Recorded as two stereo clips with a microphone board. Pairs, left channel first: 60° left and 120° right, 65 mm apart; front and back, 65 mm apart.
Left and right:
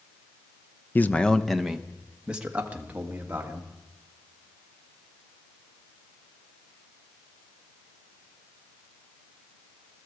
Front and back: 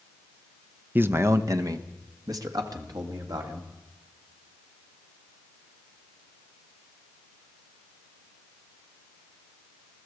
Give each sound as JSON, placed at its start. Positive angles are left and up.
{"t": 0.9, "sound": "a man speaking", "azimuth_deg": 120, "distance_m": 0.7}